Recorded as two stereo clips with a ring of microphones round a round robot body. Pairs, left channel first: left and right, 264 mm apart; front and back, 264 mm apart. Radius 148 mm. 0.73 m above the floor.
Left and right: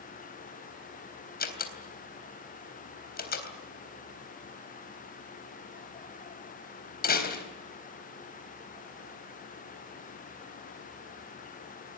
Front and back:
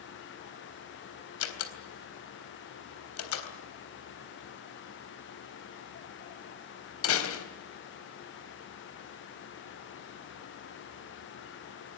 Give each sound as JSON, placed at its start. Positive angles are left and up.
{"t": 1.4, "sound": "a door slam", "azimuth_deg": 35, "distance_m": 3.5}